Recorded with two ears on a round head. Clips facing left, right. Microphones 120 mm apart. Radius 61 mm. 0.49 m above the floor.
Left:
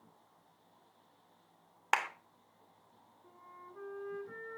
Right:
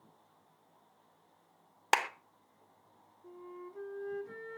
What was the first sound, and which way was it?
A clap, 35° right (ahead or behind).